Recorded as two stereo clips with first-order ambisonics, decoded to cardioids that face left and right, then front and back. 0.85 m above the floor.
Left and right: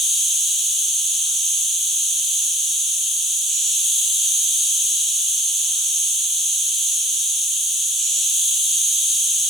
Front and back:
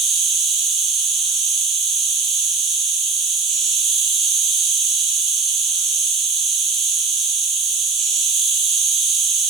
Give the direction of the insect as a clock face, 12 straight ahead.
6 o'clock.